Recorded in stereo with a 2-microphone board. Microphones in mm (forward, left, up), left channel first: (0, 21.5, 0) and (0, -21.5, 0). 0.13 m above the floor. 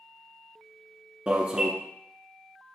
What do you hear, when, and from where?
1.3 s an alarm: 25° right (ahead or behind), 0.8 m